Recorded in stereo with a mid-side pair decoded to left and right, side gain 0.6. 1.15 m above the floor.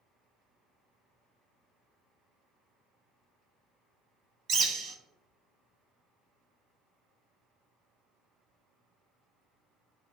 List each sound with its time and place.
4.5 s a bird: 45° right, 0.7 m